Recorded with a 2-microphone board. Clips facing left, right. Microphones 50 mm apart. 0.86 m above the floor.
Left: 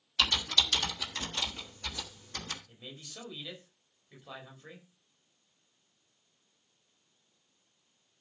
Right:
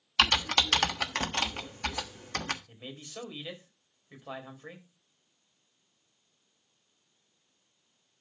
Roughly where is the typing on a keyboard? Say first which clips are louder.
Right 4 dB; right.